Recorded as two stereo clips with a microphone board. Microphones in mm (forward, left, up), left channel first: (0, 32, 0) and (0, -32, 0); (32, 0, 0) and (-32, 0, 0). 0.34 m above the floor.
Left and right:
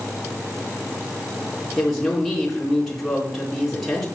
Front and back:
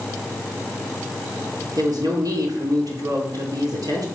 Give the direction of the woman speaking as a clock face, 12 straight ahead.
6 o'clock.